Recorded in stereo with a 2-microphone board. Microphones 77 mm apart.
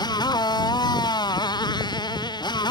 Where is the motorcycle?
60° left (ahead or behind); by 2.7 s 65° left (ahead or behind).